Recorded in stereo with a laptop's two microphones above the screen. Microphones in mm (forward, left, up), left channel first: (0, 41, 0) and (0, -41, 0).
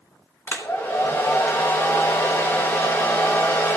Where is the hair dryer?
25° left (ahead or behind), 1.0 m.